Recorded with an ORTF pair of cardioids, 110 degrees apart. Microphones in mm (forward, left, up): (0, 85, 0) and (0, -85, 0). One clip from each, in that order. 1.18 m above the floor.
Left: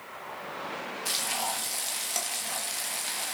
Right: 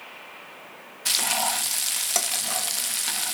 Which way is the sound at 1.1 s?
45° right.